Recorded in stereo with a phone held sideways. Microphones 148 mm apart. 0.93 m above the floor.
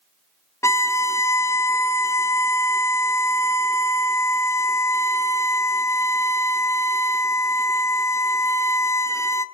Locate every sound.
0.6 s a violin: 20° left (ahead or behind), 0.6 m